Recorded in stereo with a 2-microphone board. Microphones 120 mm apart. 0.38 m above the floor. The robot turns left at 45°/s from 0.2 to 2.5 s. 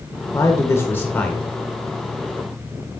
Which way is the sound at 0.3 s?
25° left (ahead or behind).